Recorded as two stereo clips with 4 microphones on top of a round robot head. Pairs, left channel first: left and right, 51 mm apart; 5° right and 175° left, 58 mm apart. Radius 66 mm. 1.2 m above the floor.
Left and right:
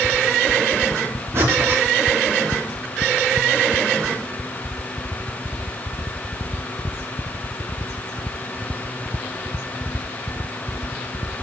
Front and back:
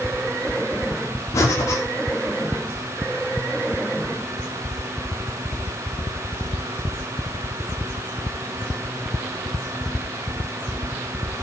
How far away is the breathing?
About 2.5 m.